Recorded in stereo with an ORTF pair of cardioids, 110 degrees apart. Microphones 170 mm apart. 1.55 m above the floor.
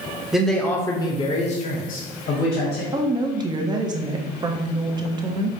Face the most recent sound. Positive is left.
turn(degrees=-25)